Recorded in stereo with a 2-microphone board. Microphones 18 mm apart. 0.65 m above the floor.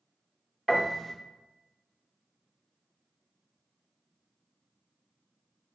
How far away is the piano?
About 0.7 m.